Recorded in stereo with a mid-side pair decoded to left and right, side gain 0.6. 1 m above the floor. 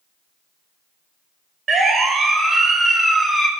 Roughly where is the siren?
Ahead right.